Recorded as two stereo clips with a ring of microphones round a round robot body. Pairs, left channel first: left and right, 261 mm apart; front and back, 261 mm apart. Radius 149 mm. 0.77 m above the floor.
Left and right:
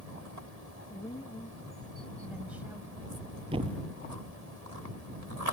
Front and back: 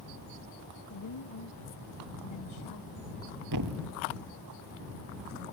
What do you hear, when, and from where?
0.9 s a woman speaking: 15° left; by 3.0 s 10° right
3.5 s a thud: 160° right